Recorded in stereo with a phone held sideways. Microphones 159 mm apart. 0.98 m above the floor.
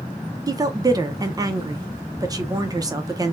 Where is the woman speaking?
20° right (ahead or behind), 0.5 m.